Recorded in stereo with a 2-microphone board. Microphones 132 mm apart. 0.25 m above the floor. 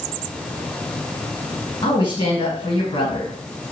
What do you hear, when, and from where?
1.8 s a woman speaking: 35° left (ahead or behind), 1.9 m